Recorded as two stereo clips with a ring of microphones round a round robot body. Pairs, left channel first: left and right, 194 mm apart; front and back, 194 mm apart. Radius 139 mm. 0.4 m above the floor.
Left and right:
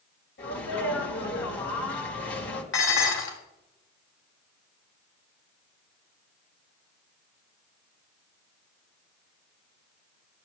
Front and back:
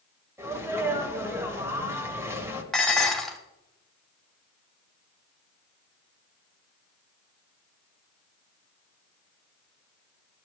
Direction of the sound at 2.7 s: 90° left.